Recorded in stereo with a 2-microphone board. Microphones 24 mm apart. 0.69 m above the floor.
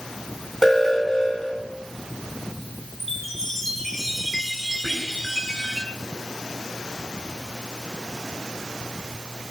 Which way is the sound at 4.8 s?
20° left (ahead or behind).